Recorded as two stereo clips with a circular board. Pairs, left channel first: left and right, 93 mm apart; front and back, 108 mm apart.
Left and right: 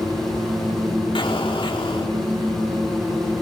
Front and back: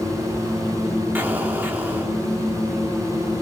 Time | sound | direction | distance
1.1 | an explosion | 105° left | 4 m